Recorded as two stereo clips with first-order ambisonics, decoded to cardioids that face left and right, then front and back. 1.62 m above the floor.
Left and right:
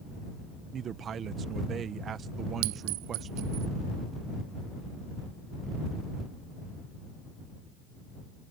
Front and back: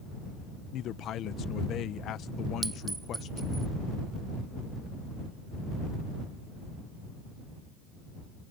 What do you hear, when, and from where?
0.7 s a man speaking: 35° right
2.6 s a clink: 100° right